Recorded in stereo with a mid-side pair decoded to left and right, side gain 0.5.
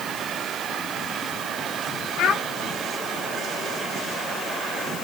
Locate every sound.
2.2 s a child speaking: 70° left, 2 m